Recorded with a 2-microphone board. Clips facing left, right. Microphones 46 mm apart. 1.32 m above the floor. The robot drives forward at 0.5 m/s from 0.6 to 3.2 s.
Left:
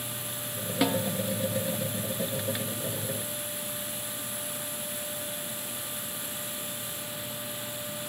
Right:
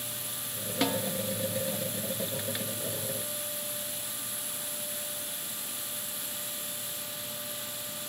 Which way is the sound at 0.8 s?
10° left (ahead or behind).